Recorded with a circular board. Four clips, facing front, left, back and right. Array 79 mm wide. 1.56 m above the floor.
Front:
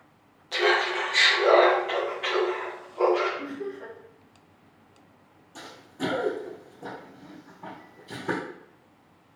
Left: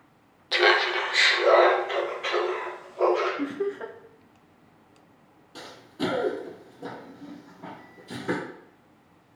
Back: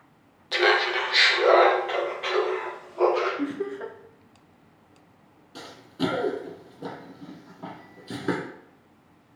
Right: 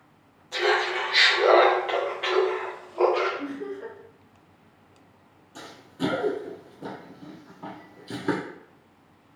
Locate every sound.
0.5 s laughter: 110° left, 0.7 m; by 3.3 s 90° right, 1.8 m
3.4 s laughter: 130° left, 0.5 m
5.5 s running footsteps: 150° left, 1.7 m; by 8.4 s 130° right, 2 m